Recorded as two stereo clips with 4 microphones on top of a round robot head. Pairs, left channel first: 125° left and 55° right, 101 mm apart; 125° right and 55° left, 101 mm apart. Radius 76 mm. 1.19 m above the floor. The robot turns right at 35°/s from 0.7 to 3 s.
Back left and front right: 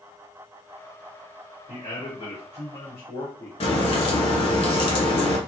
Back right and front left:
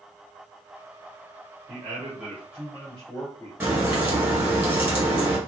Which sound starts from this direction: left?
A man speaking, at 1.7 s.